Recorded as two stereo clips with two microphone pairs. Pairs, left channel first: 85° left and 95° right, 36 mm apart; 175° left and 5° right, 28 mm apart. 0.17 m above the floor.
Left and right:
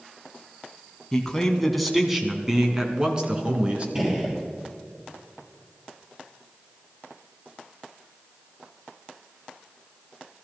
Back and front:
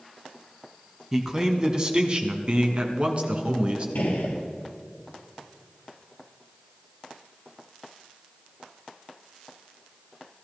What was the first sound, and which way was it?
A man speaking, 35° left.